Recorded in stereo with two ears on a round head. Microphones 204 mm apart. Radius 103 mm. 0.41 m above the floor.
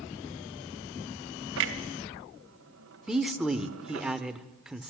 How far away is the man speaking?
About 1.2 m.